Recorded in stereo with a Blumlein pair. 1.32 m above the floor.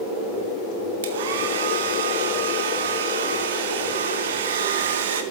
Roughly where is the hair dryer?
Ahead right.